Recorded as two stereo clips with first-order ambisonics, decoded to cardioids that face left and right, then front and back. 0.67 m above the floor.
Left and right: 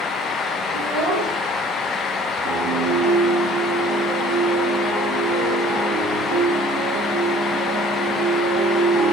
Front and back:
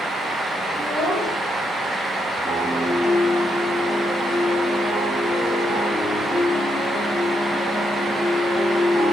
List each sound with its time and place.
0.7 s a child speaking: 105° right, 6 m
2.4 s a piano: 90° right, 8.5 m